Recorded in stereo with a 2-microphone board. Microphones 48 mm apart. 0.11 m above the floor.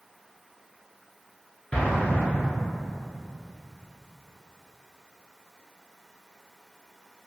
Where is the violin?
No violin in this recording.